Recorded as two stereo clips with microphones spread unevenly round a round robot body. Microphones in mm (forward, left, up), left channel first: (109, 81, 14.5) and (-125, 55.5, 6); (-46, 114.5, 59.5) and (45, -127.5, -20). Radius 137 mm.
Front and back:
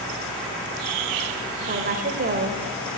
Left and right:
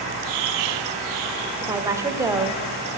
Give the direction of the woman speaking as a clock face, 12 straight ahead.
4 o'clock.